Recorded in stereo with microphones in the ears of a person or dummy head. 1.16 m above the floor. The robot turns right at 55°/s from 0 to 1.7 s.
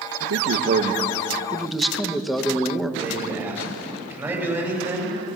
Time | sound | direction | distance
0.2 | a man speaking | 85° right | 1.5 m
3.0 | a man speaking | 20° right (ahead or behind) | 7 m